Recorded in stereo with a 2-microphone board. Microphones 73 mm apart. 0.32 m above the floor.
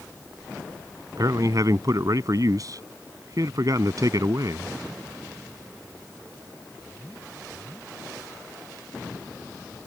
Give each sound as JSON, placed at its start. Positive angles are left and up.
{"t": 1.2, "sound": "a man speaking", "side_deg": -55}